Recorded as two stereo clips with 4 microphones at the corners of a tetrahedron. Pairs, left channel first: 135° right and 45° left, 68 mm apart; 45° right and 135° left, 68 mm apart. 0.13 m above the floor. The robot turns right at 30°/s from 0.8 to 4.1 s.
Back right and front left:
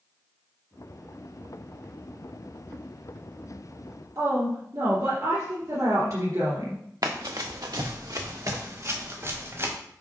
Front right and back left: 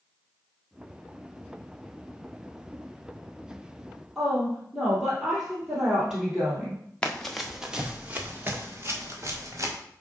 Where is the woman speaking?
55° left, 2.5 m.